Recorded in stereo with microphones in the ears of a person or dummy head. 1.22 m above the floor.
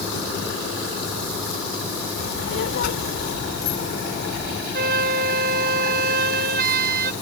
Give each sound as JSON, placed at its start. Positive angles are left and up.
{"t": 2.2, "sound": "a child speaking", "side_deg": 60}
{"t": 4.7, "sound": "a flute", "side_deg": -50}